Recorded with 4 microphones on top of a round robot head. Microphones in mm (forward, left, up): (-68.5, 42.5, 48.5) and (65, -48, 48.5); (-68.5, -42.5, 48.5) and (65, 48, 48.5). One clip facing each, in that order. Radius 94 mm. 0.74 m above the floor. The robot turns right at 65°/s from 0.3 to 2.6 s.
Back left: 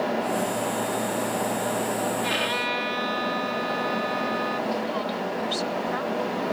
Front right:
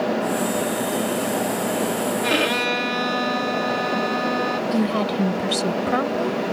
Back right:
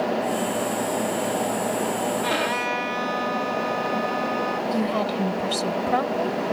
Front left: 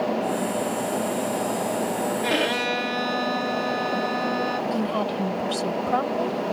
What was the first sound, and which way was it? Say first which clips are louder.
A violin: front right 6 dB, front left 1 dB; 35° right.